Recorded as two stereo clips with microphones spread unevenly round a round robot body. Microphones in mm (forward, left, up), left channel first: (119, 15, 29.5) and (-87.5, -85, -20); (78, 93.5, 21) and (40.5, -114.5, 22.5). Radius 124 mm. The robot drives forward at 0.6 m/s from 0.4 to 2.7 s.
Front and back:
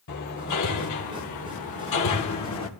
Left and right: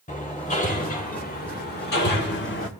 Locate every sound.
0.1 s hammering: 30° left, 2.5 m; by 2.7 s 55° left, 1.4 m